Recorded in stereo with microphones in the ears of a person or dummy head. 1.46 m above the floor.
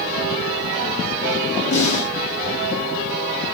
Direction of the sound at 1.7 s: 70° left (ahead or behind).